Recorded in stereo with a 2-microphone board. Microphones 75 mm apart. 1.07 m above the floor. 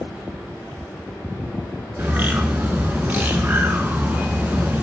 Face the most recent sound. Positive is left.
turn(degrees=-25)  # may be behind; listen again after turning